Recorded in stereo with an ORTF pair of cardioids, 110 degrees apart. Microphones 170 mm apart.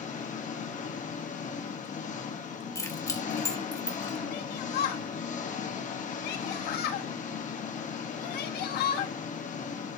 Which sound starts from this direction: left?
A shout, at 4.3 s.